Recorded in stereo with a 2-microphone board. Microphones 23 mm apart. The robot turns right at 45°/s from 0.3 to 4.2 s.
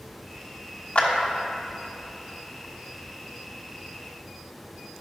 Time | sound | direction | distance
0.9 | a clap | 55° left (ahead or behind) | 1.2 m